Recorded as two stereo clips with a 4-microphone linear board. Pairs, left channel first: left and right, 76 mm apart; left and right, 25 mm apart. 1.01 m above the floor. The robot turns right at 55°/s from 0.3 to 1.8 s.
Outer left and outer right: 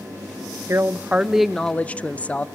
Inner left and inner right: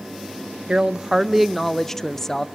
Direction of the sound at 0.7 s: 40° right.